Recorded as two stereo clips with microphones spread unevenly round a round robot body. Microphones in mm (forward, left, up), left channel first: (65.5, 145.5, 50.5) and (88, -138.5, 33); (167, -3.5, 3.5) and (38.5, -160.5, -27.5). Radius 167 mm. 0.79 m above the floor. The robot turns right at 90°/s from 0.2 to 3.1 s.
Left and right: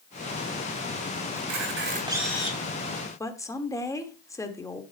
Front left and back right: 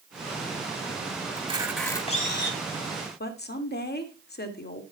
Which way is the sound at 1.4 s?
75° right.